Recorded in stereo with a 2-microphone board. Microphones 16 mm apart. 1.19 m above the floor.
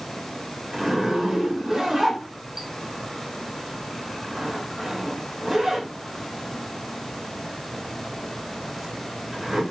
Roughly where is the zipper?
Right.